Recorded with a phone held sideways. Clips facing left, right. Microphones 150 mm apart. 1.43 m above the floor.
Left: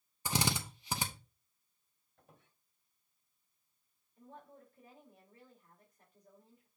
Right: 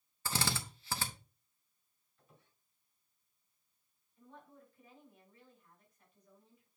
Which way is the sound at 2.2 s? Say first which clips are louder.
Left 2 dB; 65° left (ahead or behind).